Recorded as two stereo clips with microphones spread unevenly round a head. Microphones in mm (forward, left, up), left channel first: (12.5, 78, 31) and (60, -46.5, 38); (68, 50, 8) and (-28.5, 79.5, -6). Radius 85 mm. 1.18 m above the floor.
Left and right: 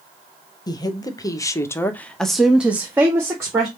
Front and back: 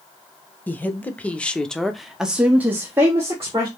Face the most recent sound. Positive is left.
turn(degrees=-135)